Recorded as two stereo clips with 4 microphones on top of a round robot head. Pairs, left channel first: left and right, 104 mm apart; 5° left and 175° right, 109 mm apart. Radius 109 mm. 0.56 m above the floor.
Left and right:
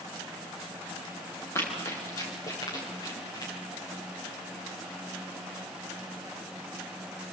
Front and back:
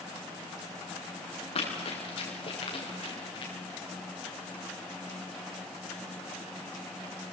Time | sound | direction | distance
1.6 | running footsteps | 30° left | 7 m